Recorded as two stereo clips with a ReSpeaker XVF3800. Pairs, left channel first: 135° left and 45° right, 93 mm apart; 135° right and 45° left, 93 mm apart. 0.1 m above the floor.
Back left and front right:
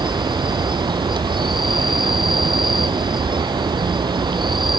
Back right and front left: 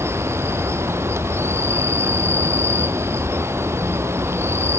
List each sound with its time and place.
0.0 s an insect: 15° right, 0.7 m